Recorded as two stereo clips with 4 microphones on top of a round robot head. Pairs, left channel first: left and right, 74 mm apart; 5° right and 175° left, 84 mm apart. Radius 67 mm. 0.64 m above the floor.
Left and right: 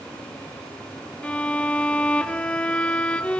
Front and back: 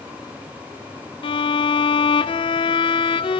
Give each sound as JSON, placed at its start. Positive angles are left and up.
{"t": 1.2, "sound": "a violin", "azimuth_deg": 15, "distance_m": 0.8}